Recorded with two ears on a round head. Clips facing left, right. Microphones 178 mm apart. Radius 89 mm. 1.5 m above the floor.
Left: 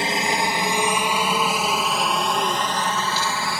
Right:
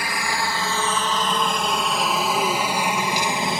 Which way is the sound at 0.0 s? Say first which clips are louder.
Left 4 dB; 20° left (ahead or behind).